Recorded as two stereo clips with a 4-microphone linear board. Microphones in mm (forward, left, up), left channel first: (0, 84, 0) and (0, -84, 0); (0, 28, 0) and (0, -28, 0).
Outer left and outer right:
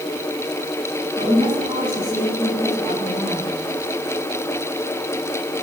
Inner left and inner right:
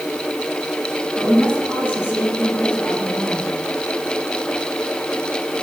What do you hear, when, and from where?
1.2 s a woman speaking: 30° right (ahead or behind), 7.5 m; by 3.5 s 10° right (ahead or behind), 7 m